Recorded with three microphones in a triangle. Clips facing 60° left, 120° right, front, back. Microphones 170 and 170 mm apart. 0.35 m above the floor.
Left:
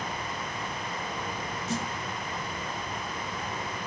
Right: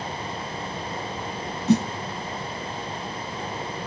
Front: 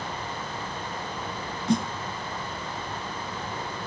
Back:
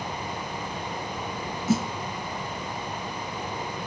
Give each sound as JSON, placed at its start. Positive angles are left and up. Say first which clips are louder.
{"t": 1.7, "sound": "a snare drum", "louder": "right 14 dB, even", "azimuth_deg": -95, "distance_m": 0.6}